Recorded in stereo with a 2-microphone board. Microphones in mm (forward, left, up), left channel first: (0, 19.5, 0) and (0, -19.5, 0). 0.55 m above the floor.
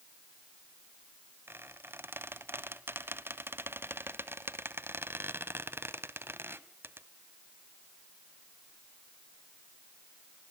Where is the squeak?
80° right, 1.0 m.